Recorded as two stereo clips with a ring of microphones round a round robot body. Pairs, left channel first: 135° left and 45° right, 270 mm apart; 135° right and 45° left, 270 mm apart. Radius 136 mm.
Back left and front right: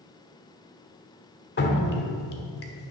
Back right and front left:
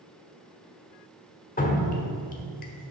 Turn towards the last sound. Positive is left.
turn(degrees=175)